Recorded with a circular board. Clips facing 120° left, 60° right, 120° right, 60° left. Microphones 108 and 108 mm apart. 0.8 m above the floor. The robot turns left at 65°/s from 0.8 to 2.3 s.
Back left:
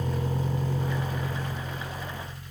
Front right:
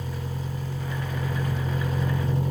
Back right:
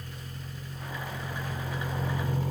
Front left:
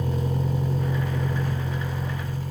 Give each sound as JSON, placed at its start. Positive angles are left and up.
{"t": 0.0, "sound": "a vehicle", "azimuth_deg": 50}